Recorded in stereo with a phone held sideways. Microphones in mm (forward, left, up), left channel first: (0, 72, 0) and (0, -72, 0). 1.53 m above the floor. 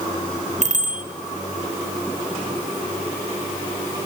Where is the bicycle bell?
55° right (ahead or behind), 4.5 m.